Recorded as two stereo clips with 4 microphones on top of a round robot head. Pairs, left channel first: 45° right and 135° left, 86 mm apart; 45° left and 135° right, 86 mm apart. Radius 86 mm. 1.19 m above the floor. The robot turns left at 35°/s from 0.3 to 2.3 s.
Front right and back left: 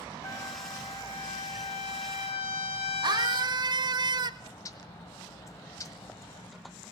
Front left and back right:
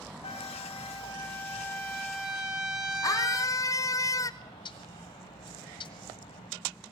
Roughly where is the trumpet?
Ahead.